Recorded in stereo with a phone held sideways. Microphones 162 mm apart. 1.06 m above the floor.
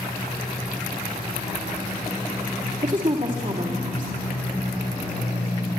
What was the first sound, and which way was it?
A woman speaking, 55° right (ahead or behind).